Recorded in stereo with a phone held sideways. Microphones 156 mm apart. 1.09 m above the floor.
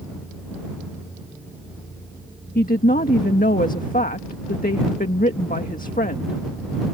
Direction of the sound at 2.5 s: 70° left (ahead or behind).